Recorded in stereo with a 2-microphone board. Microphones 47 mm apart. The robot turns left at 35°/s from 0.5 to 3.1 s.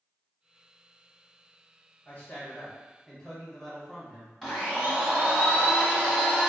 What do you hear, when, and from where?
2.0 s a man speaking: 45° left, 1.2 m; by 4.3 s 10° left, 1.2 m
4.4 s a blender: 5° left (ahead or behind), 1.5 m